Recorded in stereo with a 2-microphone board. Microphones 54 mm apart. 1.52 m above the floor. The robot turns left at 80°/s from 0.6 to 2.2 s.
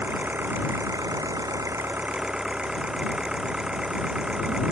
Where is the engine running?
35° right; by 4.7 s 160° right.